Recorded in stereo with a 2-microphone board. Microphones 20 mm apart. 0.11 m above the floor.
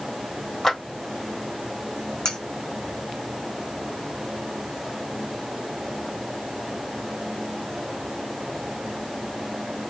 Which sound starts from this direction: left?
Cutlery clinking, at 2.2 s.